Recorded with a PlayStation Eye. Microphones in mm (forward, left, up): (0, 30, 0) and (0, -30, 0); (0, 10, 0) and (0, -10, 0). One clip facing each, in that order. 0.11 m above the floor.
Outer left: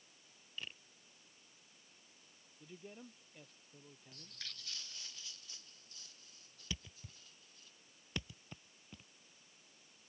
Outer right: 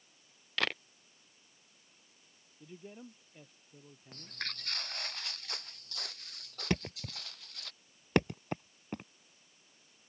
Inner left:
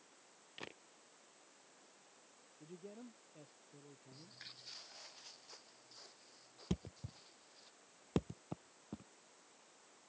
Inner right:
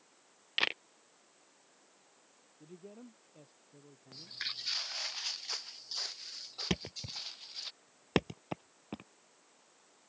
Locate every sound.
0.6 s a camera shutter: 85° right
2.6 s a man speaking: 5° right (ahead or behind)
4.1 s footsteps: 50° right (ahead or behind); by 7.7 s 75° right (ahead or behind)
6.7 s a thud: 60° right (ahead or behind)